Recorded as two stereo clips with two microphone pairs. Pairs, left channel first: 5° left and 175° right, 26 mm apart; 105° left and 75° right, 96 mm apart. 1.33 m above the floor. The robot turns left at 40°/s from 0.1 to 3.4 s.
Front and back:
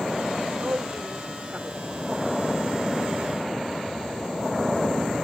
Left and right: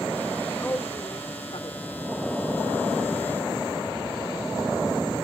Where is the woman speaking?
Straight behind; by 1.8 s 130° left.